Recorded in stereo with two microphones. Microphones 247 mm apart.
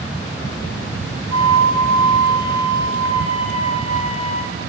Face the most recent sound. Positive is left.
turn(degrees=-90)